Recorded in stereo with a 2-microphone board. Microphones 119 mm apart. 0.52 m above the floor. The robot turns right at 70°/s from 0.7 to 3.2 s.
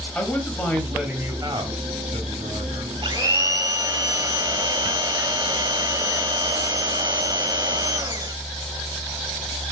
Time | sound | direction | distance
0.1 | a man speaking | 170° left | 3.5 m
3.0 | a blender | 45° right (ahead or behind) | 1.3 m